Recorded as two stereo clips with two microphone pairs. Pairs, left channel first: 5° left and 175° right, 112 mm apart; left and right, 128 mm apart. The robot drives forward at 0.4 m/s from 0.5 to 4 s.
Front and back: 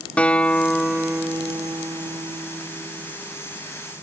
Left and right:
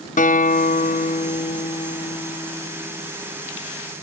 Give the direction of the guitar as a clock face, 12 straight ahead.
9 o'clock.